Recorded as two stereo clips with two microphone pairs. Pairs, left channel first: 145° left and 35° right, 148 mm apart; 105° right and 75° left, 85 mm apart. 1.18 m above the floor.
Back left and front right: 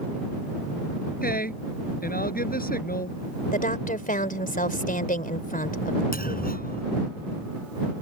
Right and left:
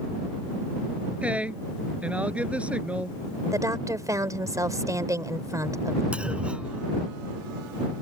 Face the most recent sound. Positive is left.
turn(degrees=150)